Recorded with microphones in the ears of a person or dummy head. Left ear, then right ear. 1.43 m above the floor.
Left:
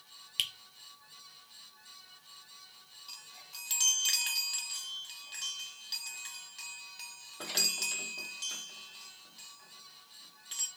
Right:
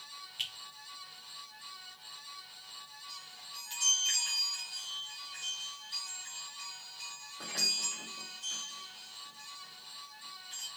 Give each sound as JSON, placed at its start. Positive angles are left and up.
{"t": 0.4, "sound": "a finger snap", "side_deg": 35, "distance_m": 0.7}
{"t": 3.1, "sound": "a chime", "side_deg": 25, "distance_m": 0.9}